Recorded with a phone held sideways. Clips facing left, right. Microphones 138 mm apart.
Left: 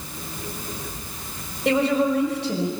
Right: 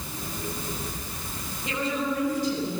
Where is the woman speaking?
85° left, 5.5 m.